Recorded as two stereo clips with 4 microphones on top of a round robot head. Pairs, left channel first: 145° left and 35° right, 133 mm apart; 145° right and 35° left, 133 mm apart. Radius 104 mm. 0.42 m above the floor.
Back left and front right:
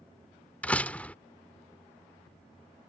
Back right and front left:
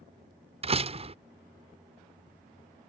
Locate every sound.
0.6 s a door slam: 65° left